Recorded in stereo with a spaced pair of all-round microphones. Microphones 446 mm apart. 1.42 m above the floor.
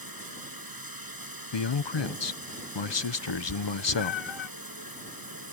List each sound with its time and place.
0.0 s running water: 50° right (ahead or behind)
1.5 s a man speaking: 65° left (ahead or behind)
3.3 s a cat meowing: 70° left (ahead or behind)